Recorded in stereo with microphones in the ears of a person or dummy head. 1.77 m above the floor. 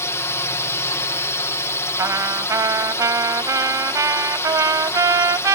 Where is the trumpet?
20° right (ahead or behind).